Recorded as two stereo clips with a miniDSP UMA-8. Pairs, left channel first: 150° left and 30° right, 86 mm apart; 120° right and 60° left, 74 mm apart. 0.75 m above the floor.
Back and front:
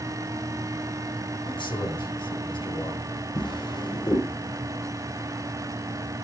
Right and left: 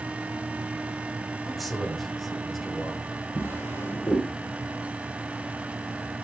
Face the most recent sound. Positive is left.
turn(degrees=180)